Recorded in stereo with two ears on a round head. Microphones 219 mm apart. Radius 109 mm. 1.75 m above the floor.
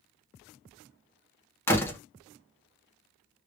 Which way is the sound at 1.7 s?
10° left (ahead or behind).